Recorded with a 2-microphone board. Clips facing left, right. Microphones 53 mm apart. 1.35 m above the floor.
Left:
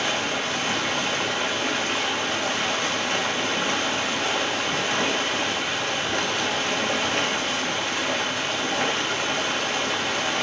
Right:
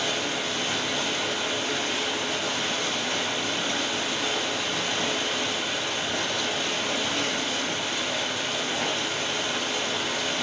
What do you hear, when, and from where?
0.0 s running water: 60° left (ahead or behind), 2 m